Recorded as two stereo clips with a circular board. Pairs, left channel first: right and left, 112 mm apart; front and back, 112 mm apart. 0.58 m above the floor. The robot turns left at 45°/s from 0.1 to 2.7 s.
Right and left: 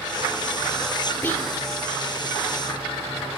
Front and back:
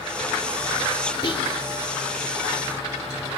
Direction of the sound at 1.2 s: 20° right.